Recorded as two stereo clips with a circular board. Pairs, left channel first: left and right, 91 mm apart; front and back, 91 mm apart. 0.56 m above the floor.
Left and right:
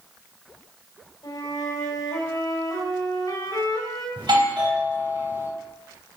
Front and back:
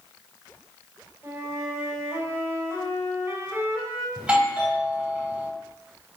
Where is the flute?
125° left, 3.5 m.